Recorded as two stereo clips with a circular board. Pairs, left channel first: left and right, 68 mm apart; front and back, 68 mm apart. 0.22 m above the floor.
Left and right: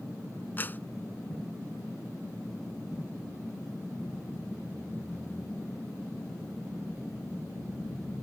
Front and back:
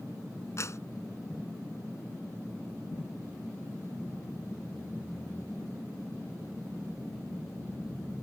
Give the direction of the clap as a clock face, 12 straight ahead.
11 o'clock.